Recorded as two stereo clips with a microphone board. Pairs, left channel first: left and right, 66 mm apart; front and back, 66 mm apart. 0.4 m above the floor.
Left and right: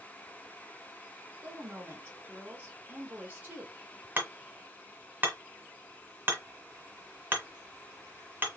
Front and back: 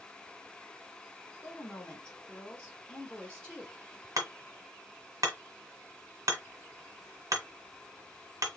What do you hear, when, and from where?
1.4 s a woman speaking: 60° right, 1.2 m
4.2 s hammering: 150° right, 1.5 m